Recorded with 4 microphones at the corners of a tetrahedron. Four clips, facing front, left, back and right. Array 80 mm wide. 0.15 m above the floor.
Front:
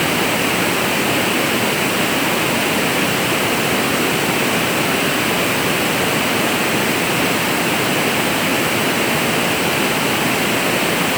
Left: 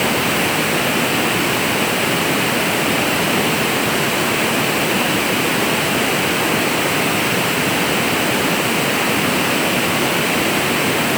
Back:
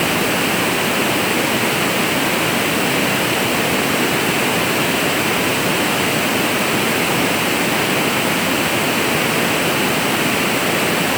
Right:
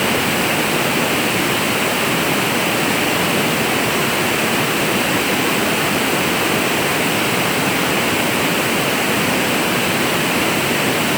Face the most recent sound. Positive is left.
No sound to turn to.